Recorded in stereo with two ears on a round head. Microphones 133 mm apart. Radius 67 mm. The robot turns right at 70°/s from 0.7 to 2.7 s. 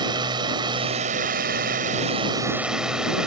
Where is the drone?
145° right; by 3.3 s 5° right.